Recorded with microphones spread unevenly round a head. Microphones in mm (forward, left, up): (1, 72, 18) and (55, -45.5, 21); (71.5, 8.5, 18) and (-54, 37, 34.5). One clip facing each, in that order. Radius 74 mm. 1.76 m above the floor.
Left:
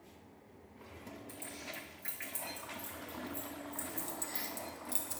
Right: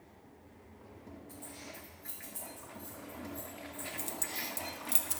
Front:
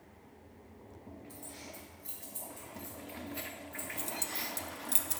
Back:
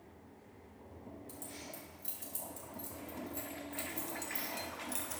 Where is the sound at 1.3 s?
155° left, 3 m; by 4.5 s 105° left, 4 m.